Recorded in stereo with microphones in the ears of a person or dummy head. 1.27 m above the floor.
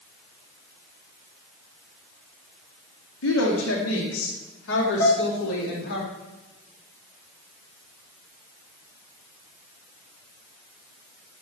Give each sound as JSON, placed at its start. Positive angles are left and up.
{"t": 3.2, "sound": "a woman speaking", "side_deg": 85, "distance_m": 2.0}
{"t": 5.0, "sound": "dishes clattering", "side_deg": 70, "distance_m": 3.0}